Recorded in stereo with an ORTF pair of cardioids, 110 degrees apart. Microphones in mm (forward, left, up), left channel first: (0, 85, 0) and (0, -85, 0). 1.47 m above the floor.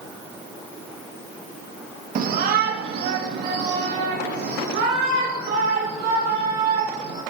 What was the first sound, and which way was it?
A shout, 60° right.